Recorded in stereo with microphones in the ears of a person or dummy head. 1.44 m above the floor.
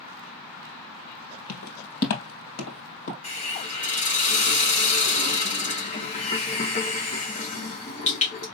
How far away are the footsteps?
About 2.5 m.